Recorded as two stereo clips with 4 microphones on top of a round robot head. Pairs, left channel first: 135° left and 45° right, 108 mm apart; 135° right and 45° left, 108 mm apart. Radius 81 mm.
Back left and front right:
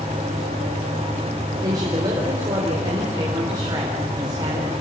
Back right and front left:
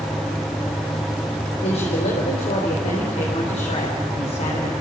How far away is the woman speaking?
About 4.5 m.